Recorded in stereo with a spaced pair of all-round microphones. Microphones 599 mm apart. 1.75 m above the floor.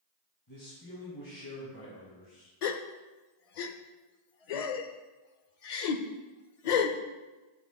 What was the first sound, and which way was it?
A man speaking, 30° left (ahead or behind).